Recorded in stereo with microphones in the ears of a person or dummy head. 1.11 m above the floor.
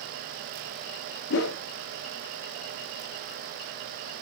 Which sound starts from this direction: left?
A whoosh, at 1.3 s.